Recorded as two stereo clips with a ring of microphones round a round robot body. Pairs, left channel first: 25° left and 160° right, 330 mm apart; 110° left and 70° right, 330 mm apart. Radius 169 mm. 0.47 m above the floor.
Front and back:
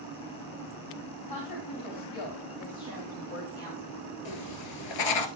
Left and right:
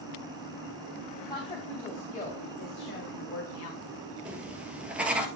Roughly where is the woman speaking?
Ahead left.